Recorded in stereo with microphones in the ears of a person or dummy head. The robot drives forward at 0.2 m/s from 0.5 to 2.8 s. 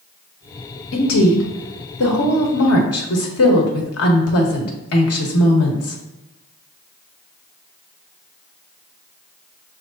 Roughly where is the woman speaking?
Left.